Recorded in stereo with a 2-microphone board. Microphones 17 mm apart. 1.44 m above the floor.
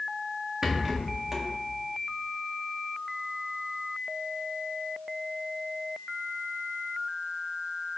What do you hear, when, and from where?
0.6 s a rattle: 20° right (ahead or behind), 1.2 m